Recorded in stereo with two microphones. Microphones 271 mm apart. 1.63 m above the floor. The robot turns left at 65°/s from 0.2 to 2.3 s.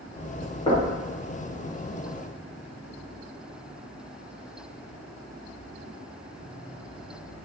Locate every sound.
0.7 s knocking: 20° left (ahead or behind), 1.1 m; by 1.0 s centre (ahead or behind), 1.1 m